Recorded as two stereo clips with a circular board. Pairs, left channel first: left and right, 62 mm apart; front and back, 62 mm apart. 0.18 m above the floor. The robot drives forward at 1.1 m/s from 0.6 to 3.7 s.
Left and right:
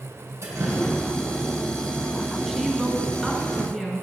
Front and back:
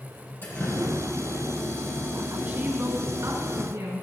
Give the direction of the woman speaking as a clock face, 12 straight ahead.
6 o'clock.